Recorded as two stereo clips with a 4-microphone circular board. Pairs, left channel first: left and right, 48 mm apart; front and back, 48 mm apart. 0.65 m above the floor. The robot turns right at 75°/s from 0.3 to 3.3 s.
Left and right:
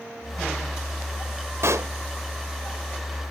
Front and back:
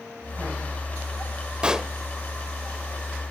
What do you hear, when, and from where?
1.6 s a pop: 110° right, 0.6 m; by 1.9 s 90° right, 0.6 m